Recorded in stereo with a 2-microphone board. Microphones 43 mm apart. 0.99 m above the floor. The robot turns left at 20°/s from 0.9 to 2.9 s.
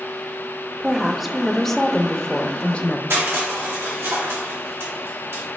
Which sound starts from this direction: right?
Crushing, at 3.1 s.